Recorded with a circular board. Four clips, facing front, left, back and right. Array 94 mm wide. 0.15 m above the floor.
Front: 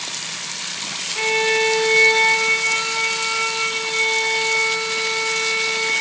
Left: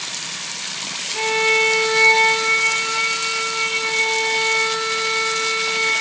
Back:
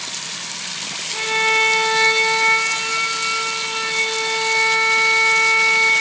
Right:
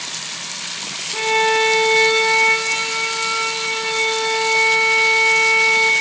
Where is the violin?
115° right, 2.5 m.